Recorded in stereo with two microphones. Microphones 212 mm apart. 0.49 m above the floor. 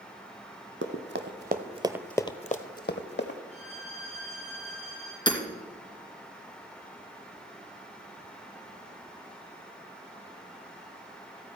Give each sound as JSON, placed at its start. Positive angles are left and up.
{"t": 0.8, "sound": "running footsteps", "side_deg": -70, "distance_m": 1.4}
{"t": 3.5, "sound": "a violin", "side_deg": -30, "distance_m": 5.5}
{"t": 5.3, "sound": "hammering", "side_deg": 20, "distance_m": 2.0}